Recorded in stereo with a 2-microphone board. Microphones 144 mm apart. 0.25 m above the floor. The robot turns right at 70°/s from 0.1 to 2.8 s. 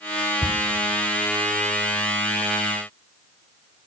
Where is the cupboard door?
15° left (ahead or behind), 1.7 m; by 0.6 s 25° left (ahead or behind), 1.7 m.